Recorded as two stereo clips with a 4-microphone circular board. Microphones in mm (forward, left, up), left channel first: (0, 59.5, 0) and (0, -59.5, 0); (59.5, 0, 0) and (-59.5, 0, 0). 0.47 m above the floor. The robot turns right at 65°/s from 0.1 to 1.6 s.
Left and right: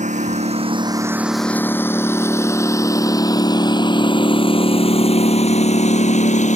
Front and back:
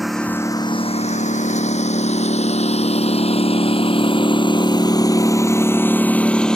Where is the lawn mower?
90° right; by 6.6 s 85° left.